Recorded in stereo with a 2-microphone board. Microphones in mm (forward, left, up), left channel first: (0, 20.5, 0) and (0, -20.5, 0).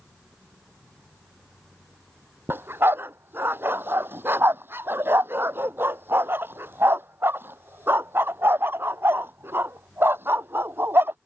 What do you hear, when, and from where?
2.5 s a dog barking: 65° right (ahead or behind)